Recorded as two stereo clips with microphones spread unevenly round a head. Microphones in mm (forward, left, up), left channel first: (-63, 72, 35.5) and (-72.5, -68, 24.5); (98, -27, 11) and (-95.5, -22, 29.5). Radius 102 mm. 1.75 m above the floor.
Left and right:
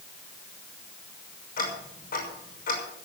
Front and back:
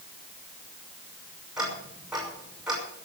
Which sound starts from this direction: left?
Ticking, at 1.6 s.